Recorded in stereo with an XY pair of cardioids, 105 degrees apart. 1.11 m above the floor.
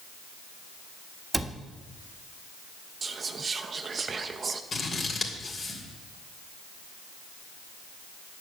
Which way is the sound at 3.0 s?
35° right.